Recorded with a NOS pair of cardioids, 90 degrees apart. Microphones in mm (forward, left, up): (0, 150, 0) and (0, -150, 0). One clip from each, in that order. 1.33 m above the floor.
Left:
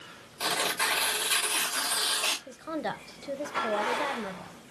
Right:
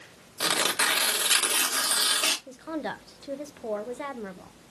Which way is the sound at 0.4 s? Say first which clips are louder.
Right 3 dB; 60° right.